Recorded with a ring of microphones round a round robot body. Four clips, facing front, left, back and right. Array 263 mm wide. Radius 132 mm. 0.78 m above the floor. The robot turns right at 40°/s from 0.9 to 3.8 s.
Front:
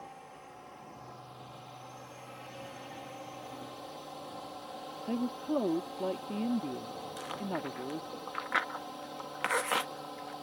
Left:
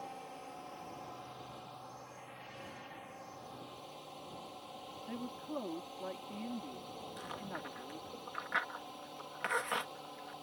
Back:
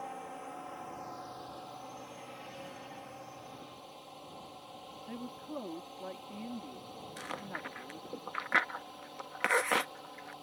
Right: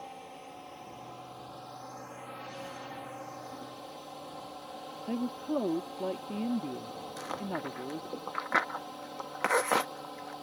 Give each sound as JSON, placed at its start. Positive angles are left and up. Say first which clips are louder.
{"t": 0.0, "sound": "a drone", "louder": "right 2 dB, back 6 dB", "azimuth_deg": -160}
{"t": 5.1, "sound": "a woman speaking", "louder": "right 11 dB, front 11 dB", "azimuth_deg": -45}
{"t": 7.2, "sound": "chewing", "louder": "right 10 dB, front 5 dB", "azimuth_deg": -110}